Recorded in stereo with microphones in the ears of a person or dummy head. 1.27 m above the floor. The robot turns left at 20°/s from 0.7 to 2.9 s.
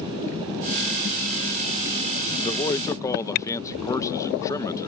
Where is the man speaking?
30° left (ahead or behind); by 4.9 s 20° left (ahead or behind).